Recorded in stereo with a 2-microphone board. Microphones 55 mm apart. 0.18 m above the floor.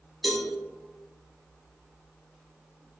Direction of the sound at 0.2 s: Centre (ahead or behind).